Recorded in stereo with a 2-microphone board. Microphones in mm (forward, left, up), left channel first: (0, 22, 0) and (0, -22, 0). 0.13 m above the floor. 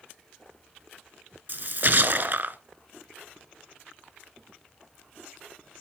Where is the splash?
45° right (ahead or behind), 0.6 m.